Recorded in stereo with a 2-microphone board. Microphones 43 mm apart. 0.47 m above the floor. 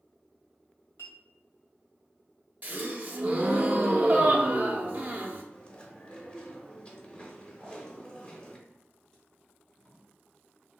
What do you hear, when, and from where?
1.0 s a clink: 70° left (ahead or behind), 1.3 m
2.6 s a gasp: 40° right (ahead or behind), 0.5 m
5.5 s chewing: 25° left (ahead or behind), 0.7 m
7.6 s tape being pulled: 15° left (ahead or behind), 1.6 m